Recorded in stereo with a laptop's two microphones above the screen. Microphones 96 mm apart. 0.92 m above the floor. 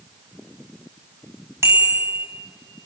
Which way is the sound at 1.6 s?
30° right (ahead or behind).